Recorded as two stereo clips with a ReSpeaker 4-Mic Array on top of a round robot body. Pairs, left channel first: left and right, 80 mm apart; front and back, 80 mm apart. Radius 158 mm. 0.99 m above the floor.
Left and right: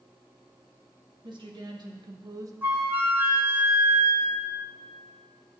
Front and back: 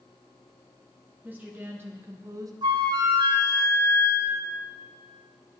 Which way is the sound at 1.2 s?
110° right.